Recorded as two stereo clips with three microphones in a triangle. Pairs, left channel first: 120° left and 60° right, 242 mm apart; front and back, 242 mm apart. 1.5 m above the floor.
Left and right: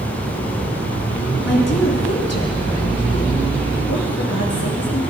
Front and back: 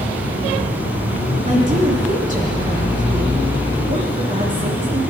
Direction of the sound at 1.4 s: 120° left.